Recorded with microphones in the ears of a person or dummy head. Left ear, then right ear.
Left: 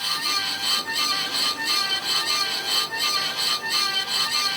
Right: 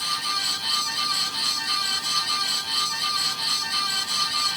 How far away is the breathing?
I don't hear breathing.